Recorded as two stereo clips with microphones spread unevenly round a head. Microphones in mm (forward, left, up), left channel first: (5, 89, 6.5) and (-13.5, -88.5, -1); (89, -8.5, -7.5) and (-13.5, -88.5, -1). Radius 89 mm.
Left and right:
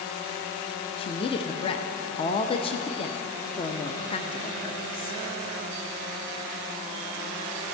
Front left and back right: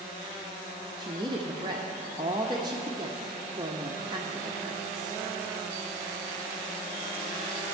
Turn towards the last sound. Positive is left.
turn(degrees=150)